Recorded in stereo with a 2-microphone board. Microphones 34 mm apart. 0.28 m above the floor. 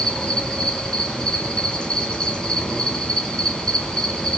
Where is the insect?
25° left (ahead or behind), 3 m.